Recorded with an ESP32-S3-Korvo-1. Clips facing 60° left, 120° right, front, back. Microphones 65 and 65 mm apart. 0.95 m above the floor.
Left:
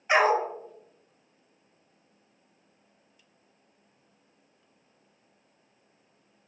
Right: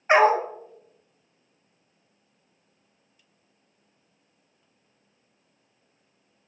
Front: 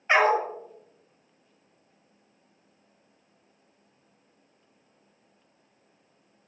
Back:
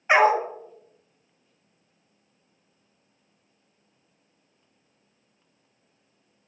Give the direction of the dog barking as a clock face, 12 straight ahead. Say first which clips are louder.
Right 4 dB, back 3 dB; 4 o'clock.